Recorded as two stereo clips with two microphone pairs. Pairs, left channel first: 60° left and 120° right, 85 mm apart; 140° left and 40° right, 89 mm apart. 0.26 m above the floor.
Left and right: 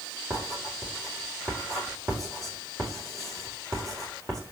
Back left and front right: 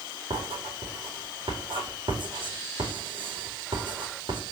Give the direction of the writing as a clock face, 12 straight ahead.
2 o'clock.